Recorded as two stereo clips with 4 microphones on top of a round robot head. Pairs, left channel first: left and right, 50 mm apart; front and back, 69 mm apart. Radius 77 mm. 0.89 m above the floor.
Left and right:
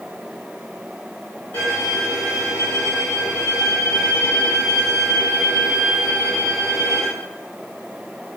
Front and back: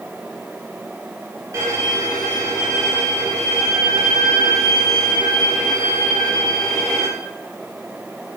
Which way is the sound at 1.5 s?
130° left.